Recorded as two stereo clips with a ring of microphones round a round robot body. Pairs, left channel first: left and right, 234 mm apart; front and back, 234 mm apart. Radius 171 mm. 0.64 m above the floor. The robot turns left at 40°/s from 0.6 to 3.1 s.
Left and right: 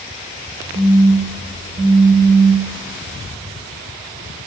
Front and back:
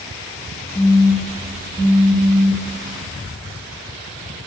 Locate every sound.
0.8 s a phone buzzing: 65° right, 1.9 m; by 2.7 s 145° right, 1.9 m